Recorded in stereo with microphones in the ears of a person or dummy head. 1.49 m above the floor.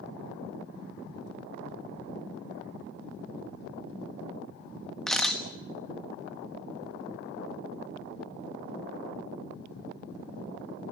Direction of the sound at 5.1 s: Centre (ahead or behind).